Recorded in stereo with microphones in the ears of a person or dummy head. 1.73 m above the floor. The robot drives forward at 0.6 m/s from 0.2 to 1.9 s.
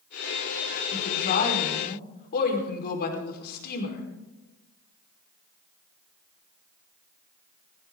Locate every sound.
0.9 s a woman speaking: 65° left (ahead or behind), 5 m; by 4.1 s 70° left (ahead or behind), 5 m